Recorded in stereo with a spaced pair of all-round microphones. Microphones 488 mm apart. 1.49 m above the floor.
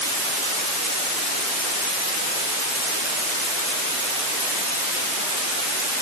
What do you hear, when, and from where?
Only background noise.